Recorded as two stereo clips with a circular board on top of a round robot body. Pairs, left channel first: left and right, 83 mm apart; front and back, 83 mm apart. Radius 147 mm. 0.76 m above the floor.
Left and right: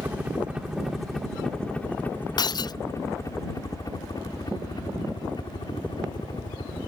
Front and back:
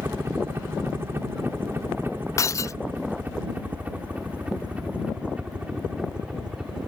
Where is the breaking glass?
55° left.